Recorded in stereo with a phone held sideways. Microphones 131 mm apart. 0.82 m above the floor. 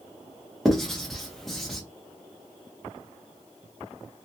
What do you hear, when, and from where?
0.7 s writing: centre (ahead or behind), 0.9 m